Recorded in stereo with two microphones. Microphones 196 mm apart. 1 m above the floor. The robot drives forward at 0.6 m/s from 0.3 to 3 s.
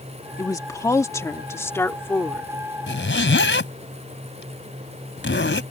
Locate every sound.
0.4 s a woman speaking: 20° left (ahead or behind); by 2.5 s 10° left (ahead or behind)
2.9 s a zipper: 75° left (ahead or behind)